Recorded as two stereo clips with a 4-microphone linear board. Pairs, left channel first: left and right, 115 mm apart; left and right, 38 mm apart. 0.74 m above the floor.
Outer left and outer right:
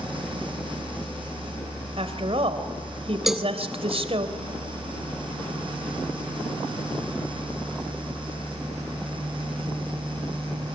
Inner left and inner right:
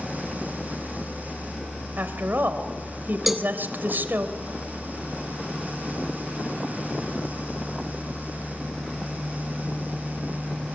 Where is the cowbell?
Centre (ahead or behind), 1.1 m.